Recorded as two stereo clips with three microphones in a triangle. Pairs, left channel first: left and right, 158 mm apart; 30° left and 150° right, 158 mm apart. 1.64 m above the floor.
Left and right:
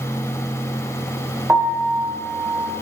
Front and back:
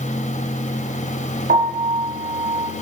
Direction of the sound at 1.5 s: 165° right.